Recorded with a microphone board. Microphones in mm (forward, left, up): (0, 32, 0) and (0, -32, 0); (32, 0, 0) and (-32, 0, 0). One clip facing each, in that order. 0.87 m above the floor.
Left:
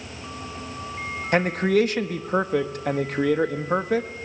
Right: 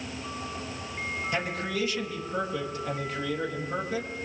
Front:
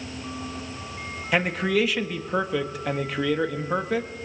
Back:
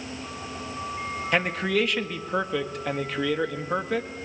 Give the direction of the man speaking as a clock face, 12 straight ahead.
9 o'clock.